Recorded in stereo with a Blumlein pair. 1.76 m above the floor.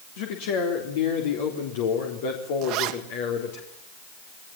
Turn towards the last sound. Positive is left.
turn(degrees=-40)